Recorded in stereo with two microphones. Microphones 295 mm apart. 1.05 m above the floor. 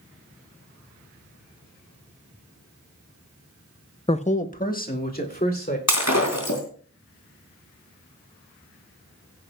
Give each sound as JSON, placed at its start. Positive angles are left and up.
{"t": 4.1, "sound": "a man speaking", "side_deg": 20, "distance_m": 0.5}
{"t": 5.9, "sound": "breaking glass", "side_deg": 60, "distance_m": 3.0}